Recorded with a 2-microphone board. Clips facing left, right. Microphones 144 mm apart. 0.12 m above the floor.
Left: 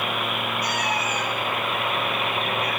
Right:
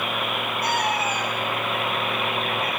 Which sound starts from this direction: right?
A cat meowing, at 0.6 s.